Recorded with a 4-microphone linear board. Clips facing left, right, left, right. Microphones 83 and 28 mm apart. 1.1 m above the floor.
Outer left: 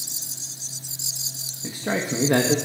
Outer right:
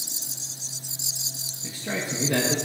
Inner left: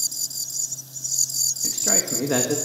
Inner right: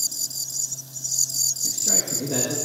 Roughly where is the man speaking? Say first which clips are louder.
Outer left 5 dB, inner left 3 dB; left.